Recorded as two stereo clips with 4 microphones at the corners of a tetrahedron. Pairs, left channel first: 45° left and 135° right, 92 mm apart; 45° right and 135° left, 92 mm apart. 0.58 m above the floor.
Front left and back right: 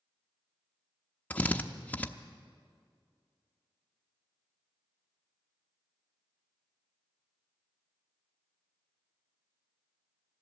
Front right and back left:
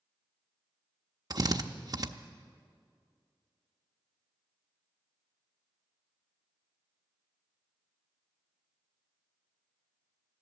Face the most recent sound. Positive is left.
turn(degrees=115)